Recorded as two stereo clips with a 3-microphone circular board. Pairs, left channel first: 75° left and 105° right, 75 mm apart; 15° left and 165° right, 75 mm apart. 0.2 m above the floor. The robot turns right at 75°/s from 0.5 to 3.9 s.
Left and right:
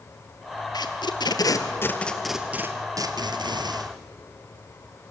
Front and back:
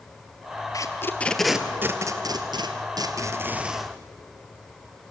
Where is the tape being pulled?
50° left, 1.5 m; by 3.9 s 70° right, 1.5 m.